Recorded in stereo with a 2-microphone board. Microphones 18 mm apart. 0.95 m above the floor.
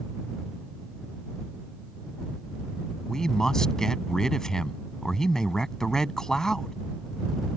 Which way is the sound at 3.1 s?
25° left (ahead or behind).